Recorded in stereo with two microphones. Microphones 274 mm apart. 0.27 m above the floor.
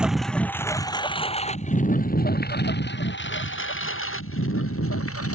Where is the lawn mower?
5° right (ahead or behind); by 5.3 s 55° left (ahead or behind).